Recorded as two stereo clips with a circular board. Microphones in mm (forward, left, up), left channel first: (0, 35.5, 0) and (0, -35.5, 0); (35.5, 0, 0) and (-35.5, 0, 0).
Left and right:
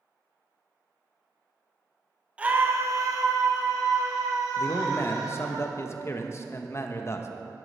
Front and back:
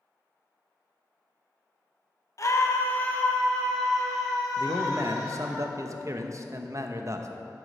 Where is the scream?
20° right, 1.2 m; by 5.6 s 90° right, 4.5 m.